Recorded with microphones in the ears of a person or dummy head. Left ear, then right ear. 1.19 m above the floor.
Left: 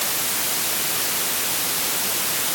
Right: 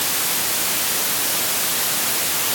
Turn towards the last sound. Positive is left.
No sound to turn to.